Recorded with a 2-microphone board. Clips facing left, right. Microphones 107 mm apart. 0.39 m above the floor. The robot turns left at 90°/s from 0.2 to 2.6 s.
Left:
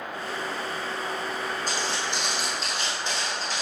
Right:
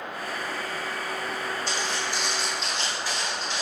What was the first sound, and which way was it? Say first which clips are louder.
Footsteps: even; 45° left (ahead or behind).